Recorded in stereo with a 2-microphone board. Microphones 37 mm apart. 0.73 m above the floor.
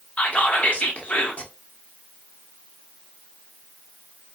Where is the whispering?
40° left (ahead or behind), 0.7 m.